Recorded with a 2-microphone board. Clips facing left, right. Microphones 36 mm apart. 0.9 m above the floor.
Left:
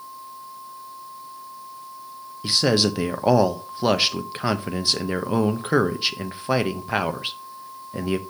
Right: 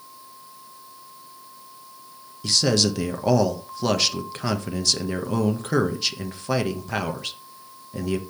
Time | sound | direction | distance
2.4 | a man speaking | 20° left (ahead or behind) | 0.6 m